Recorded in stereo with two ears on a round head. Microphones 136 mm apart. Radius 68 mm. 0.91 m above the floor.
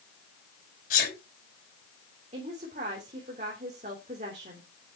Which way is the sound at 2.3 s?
50° right (ahead or behind).